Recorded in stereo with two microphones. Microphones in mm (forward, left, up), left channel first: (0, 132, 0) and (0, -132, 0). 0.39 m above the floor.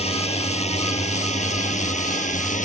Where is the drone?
25° left (ahead or behind); by 2.7 s 30° left (ahead or behind).